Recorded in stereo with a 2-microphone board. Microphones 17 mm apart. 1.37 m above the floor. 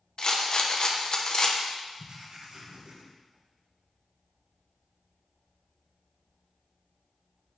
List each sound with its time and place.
0.2 s a rattle: 50° left (ahead or behind), 1.0 m
2.0 s writing: 55° right (ahead or behind), 2.5 m